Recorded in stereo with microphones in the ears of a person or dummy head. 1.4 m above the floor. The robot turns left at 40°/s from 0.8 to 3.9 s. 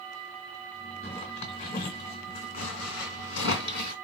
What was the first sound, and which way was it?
A zipper, 15° left (ahead or behind).